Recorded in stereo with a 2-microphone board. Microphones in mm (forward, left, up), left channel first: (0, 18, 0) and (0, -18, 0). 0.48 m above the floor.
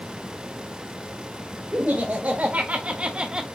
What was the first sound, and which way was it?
Laughter, 50° right (ahead or behind).